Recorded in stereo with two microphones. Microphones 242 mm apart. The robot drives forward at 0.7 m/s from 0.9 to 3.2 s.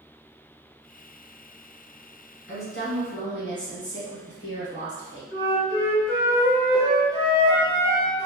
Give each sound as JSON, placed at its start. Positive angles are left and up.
{"t": 2.5, "sound": "a woman speaking", "side_deg": 55, "distance_m": 1.9}
{"t": 5.3, "sound": "a flute", "side_deg": -20, "distance_m": 1.8}